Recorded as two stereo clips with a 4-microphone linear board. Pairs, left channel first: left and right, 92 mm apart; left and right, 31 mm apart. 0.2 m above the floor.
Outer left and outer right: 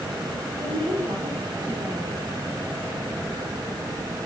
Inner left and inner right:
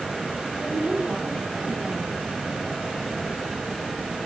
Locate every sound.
0.6 s a woman speaking: 75° right (ahead or behind), 5.5 m